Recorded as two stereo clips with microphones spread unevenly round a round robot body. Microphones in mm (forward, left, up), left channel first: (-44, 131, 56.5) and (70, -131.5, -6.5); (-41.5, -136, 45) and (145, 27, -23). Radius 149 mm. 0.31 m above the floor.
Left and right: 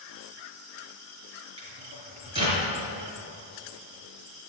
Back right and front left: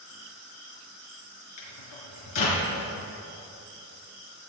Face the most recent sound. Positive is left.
turn(degrees=-140)